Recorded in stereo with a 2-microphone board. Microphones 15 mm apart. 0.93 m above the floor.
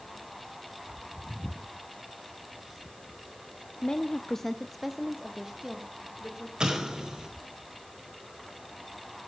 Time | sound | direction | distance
3.8 | a woman speaking | 65° left (ahead or behind) | 1.1 m
6.6 | an explosion | 75° right (ahead or behind) | 4 m